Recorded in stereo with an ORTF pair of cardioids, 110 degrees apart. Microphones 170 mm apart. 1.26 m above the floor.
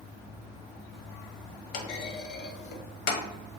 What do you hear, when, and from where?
1.7 s a clunk: 65° left, 0.5 m